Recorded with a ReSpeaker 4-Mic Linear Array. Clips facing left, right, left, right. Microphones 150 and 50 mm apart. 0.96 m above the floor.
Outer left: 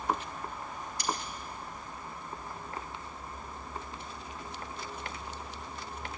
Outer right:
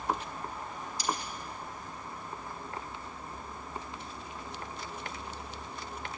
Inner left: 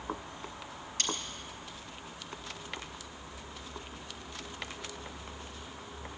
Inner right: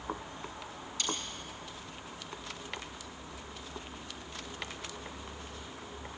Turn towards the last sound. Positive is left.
turn(degrees=60)  # may be behind; listen again after turning